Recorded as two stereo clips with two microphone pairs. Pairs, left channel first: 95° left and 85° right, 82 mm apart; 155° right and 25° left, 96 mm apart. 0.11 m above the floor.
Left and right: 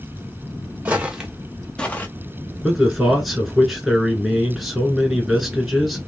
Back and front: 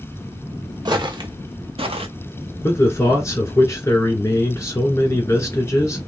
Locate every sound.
0.8 s footsteps: 15° right, 1.1 m; by 2.1 s 30° left, 0.9 m
2.6 s a man speaking: 170° right, 1.4 m